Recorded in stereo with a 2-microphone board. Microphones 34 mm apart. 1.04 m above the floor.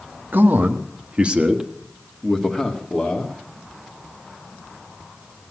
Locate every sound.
0.3 s a man speaking: 65° right (ahead or behind), 1.5 m; by 3.4 s 25° left (ahead or behind), 2.5 m